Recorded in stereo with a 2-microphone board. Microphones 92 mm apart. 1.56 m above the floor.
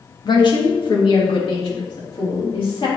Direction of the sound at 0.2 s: 45° left (ahead or behind).